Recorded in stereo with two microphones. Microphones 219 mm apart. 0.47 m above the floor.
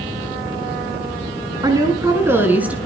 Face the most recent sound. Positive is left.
turn(degrees=-5)  # may be behind; listen again after turning